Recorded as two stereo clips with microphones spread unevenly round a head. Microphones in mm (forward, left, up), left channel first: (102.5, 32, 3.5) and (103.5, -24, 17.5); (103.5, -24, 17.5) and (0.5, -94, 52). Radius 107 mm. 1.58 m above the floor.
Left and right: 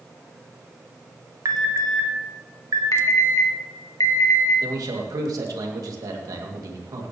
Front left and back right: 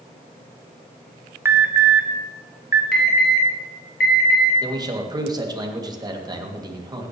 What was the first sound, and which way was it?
An alarm, 70° right.